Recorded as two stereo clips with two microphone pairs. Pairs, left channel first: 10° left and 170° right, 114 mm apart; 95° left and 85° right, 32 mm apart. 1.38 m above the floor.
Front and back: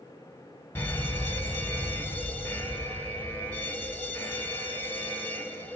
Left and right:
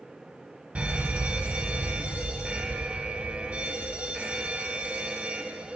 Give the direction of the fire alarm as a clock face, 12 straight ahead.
2 o'clock.